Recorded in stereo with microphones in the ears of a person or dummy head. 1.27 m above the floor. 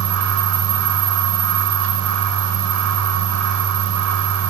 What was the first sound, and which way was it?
A fan, 80° right.